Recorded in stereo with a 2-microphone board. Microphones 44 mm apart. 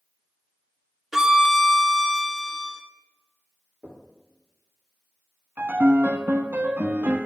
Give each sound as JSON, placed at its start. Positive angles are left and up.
{"t": 1.1, "sound": "a violin", "side_deg": -15, "distance_m": 0.7}
{"t": 3.8, "sound": "knocking", "side_deg": -20, "distance_m": 3.5}
{"t": 5.6, "sound": "a piano", "side_deg": -50, "distance_m": 0.6}